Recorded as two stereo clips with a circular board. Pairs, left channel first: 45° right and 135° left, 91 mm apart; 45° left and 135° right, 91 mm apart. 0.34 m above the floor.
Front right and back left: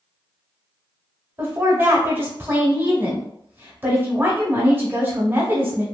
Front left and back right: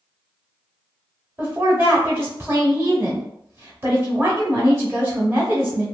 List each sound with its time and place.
1.4 s a woman speaking: straight behind, 1.2 m